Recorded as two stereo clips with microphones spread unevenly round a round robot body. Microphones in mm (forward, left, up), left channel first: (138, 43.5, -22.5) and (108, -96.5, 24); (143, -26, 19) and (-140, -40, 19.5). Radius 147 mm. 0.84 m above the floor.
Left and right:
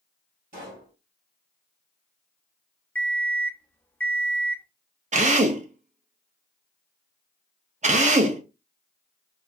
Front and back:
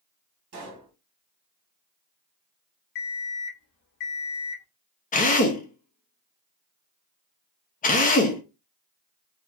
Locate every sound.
0.5 s a pop: 155° right, 1.6 m
3.0 s an alarm clock: straight ahead, 0.7 m
5.1 s a drill: 55° right, 0.7 m